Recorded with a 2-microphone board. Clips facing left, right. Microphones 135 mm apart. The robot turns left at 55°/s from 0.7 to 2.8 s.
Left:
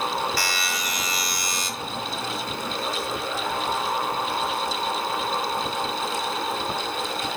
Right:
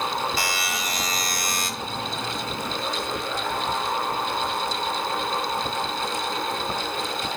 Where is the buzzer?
30° right, 1.8 m; by 1.7 s 85° right, 1.8 m.